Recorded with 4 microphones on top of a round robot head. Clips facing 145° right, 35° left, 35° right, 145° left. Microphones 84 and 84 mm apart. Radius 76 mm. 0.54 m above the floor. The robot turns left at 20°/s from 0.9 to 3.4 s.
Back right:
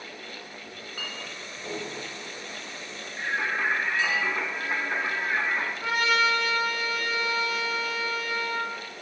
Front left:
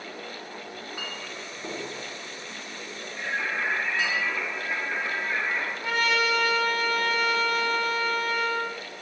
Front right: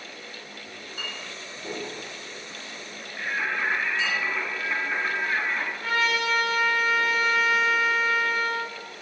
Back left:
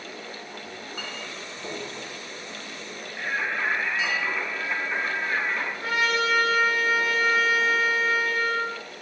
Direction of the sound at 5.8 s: 150° right.